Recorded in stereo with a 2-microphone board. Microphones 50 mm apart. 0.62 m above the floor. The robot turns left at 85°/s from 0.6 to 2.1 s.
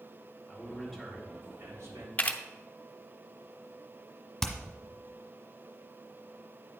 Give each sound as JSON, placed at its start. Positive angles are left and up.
{"t": 0.5, "sound": "a man speaking", "azimuth_deg": 30, "distance_m": 3.5}
{"t": 2.2, "sound": "a camera shutter", "side_deg": 30, "distance_m": 0.6}
{"t": 4.4, "sound": "hammering", "side_deg": 5, "distance_m": 1.3}